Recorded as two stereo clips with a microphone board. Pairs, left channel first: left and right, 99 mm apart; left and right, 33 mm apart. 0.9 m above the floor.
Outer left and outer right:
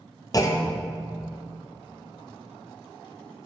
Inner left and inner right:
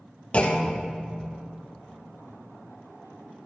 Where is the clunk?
35° left (ahead or behind), 0.7 m.